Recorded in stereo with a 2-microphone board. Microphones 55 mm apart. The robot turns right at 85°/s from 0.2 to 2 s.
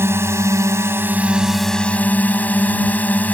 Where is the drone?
120° right; by 3.3 s 35° left.